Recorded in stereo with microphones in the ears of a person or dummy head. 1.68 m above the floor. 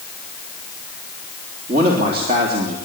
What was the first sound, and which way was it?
A man speaking, 55° right (ahead or behind).